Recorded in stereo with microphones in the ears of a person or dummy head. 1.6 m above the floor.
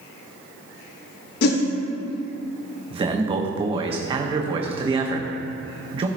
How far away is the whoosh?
About 0.9 m.